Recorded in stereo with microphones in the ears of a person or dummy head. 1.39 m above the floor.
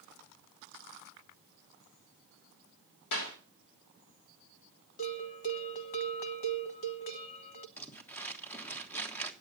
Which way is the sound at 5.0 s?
45° left (ahead or behind).